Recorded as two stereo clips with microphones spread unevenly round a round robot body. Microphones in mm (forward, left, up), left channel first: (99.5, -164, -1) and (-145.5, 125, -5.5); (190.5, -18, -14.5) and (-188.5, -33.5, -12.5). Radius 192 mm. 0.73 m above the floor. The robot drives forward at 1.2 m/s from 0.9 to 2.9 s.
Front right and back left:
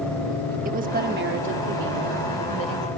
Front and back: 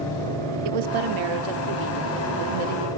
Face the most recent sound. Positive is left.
turn(degrees=-175)